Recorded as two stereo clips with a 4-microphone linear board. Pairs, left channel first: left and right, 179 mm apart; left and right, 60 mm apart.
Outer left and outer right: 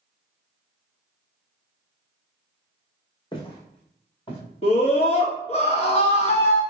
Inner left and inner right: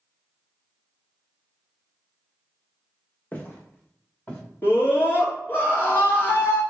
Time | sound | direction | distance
3.3 | footsteps | 25° left (ahead or behind) | 1.2 m
4.6 | a scream | 35° left (ahead or behind) | 1.5 m